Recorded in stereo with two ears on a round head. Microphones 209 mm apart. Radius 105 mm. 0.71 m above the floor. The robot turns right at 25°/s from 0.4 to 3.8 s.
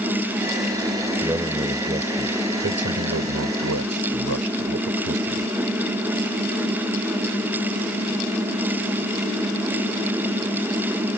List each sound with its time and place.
1.2 s a man speaking: 170° right; by 5.5 s 105° right